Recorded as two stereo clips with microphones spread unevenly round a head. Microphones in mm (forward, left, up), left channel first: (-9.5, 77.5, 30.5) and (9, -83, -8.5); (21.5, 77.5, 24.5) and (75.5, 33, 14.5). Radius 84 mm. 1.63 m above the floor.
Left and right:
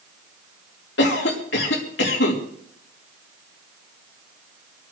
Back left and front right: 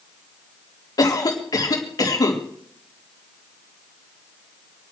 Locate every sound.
1.0 s a cough: 115° left, 3.5 m